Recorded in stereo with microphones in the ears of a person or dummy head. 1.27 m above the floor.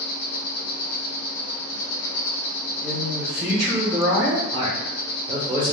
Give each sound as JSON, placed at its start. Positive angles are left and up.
{"t": 0.0, "sound": "an insect", "side_deg": 65, "distance_m": 1.4}
{"t": 2.8, "sound": "a man speaking", "side_deg": -25, "distance_m": 0.9}
{"t": 4.5, "sound": "a man speaking", "side_deg": -20, "distance_m": 0.7}